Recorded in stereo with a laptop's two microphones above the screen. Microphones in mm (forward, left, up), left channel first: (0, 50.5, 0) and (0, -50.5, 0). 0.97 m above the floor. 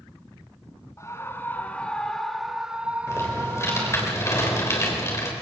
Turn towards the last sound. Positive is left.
turn(degrees=30)  # may be behind; listen again after turning